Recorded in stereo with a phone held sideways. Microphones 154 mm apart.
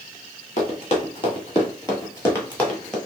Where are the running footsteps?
40° left (ahead or behind), 1.5 m; by 3.0 s 5° left (ahead or behind), 1.2 m.